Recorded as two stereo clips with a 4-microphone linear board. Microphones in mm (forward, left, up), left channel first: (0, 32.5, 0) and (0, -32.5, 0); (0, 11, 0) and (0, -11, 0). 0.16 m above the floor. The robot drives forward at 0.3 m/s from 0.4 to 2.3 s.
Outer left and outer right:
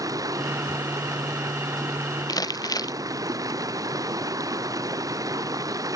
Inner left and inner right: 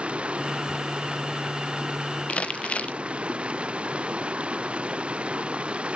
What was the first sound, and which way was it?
Running water, 70° right (ahead or behind).